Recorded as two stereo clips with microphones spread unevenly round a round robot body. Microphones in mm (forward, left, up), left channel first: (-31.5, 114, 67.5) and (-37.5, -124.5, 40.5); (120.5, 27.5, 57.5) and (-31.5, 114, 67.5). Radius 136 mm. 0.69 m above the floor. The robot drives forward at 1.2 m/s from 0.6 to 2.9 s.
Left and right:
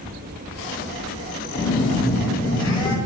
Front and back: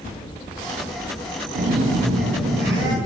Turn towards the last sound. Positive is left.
turn(degrees=165)